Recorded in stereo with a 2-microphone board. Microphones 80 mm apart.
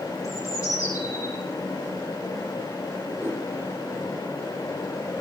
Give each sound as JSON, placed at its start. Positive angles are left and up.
{"t": 0.2, "sound": "a bird", "side_deg": 45, "distance_m": 8.0}
{"t": 3.2, "sound": "a whoosh", "side_deg": -25, "distance_m": 9.0}